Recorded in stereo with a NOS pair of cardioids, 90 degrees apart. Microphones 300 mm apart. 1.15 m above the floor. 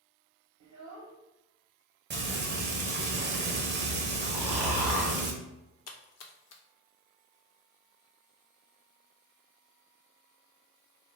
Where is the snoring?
5° right, 1.0 m.